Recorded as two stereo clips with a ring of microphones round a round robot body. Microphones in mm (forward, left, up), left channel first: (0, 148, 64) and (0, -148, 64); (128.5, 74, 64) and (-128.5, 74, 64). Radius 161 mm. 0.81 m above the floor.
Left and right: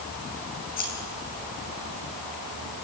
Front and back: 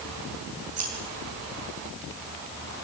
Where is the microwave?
No microwave in this recording.